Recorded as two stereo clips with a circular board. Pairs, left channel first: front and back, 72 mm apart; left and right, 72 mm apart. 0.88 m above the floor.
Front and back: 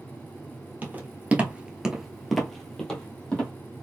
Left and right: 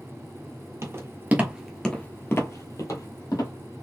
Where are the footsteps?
120° right, 1.2 m; by 3.5 s 75° left, 1.9 m.